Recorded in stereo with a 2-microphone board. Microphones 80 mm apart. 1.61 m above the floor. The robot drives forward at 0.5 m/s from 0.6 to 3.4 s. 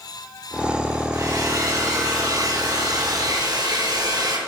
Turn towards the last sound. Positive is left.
turn(degrees=-55)  # may be behind; listen again after turning